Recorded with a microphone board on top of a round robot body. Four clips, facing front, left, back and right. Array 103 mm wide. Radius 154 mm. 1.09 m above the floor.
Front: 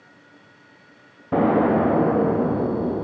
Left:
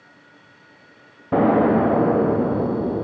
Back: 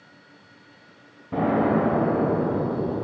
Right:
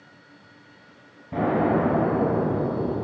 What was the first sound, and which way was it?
An explosion, 60° left.